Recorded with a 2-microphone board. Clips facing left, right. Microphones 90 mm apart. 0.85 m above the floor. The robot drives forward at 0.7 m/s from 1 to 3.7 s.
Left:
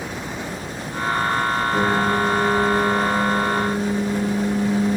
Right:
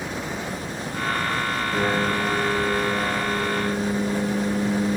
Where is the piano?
10° left (ahead or behind), 8 m.